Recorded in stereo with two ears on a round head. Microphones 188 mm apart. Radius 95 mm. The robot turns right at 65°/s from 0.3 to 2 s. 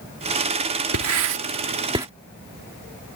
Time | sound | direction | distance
0.9 | writing | 70° right (ahead or behind) | ?